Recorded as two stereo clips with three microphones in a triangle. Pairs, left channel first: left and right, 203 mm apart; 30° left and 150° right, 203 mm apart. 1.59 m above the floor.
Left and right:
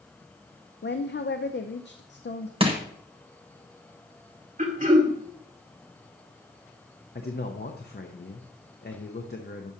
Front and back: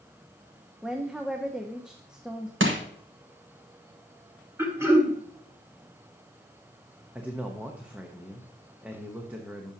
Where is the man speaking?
130° left, 0.8 m.